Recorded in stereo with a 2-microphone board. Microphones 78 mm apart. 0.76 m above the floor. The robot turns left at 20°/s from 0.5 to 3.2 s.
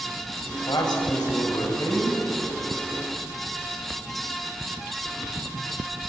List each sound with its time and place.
0.7 s a man speaking: 80° left, 5.5 m; by 2.2 s 50° left, 5.5 m